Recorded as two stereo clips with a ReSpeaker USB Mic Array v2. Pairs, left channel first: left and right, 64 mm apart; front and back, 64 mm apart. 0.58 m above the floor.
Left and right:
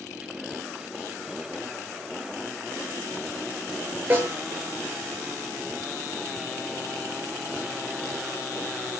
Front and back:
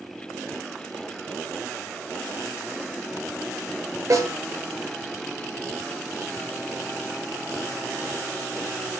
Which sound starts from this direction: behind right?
A snare drum, at 4.1 s.